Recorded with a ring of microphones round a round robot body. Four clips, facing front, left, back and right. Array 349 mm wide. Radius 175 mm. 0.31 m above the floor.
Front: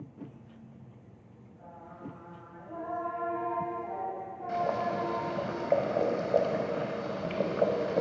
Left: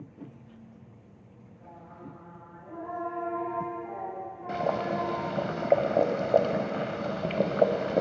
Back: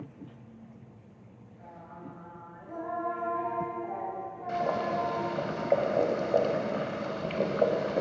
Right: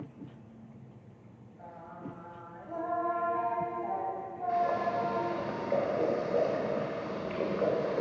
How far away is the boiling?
About 0.7 m.